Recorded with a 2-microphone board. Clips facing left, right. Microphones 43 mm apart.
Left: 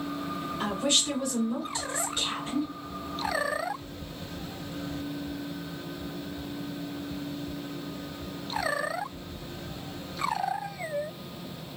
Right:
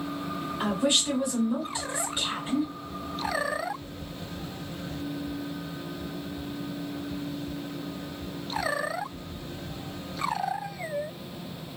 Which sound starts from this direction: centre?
A woman speaking, at 0.6 s.